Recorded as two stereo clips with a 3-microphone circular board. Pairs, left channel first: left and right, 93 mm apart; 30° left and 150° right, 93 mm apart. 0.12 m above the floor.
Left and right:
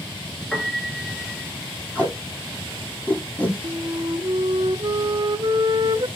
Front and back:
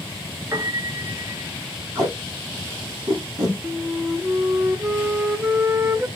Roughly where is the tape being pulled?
Behind.